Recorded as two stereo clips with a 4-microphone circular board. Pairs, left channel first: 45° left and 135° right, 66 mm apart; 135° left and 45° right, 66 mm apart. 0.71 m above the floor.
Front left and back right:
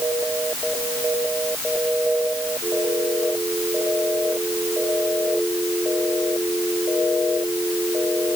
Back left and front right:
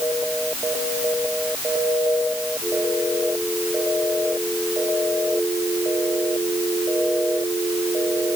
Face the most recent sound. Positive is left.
No sound to turn to.